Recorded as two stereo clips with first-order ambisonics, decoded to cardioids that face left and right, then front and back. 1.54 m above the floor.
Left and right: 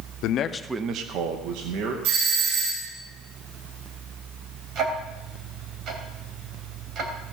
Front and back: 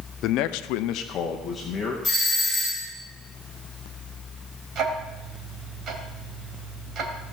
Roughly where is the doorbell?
Right.